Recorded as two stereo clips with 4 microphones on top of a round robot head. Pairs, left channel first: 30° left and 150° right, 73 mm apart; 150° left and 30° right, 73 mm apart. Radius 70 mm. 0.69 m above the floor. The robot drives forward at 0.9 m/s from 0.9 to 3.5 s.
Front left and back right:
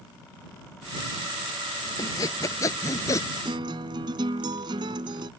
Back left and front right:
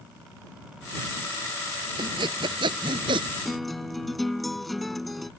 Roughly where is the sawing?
Ahead.